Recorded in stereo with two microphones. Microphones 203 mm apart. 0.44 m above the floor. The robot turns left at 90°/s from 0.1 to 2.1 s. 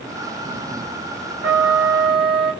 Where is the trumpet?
65° right, 0.7 m; by 2.5 s 125° right, 0.7 m.